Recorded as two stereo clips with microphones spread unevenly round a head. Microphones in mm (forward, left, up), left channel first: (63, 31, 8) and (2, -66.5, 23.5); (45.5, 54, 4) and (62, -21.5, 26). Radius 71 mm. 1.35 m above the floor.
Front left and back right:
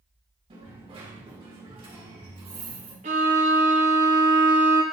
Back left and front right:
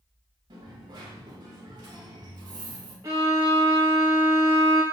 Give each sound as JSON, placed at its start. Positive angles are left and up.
{"t": 0.5, "sound": "a dropped coin", "azimuth_deg": -90, "distance_m": 1.8}
{"t": 3.0, "sound": "a violin", "azimuth_deg": -135, "distance_m": 1.1}